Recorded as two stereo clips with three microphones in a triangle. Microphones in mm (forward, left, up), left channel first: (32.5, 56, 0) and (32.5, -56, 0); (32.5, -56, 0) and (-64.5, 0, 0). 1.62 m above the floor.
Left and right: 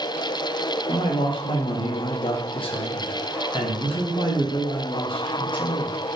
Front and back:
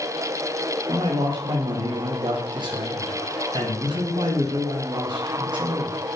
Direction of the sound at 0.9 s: 115° left.